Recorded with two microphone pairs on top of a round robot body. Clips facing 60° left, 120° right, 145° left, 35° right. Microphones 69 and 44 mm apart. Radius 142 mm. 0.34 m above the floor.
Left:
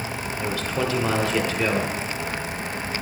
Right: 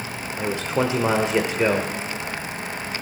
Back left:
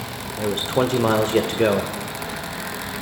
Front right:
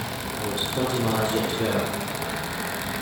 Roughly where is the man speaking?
Behind.